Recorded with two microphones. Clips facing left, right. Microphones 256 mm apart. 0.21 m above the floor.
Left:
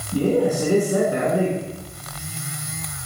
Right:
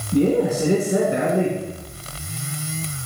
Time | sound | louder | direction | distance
0.1 | a man speaking | right 1 dB | 25° right (ahead or behind) | 2.5 m